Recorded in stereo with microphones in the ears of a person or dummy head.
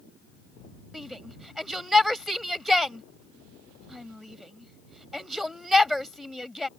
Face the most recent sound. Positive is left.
turn(degrees=0)  # may be behind; listen again after turning